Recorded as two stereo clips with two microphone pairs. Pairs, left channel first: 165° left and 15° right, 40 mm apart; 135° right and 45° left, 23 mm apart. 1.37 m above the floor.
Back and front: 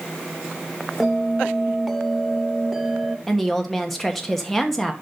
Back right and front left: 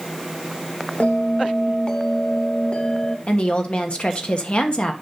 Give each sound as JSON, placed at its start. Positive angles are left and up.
{"t": 1.0, "sound": "a bell", "azimuth_deg": -100, "distance_m": 1.0}
{"t": 3.3, "sound": "a woman speaking", "azimuth_deg": -110, "distance_m": 1.4}